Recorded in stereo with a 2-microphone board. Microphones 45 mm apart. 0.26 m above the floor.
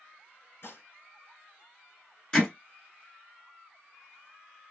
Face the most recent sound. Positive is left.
turn(degrees=20)  # may be behind; listen again after turning